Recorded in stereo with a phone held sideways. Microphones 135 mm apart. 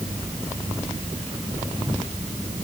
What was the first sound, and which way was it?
Only background noise.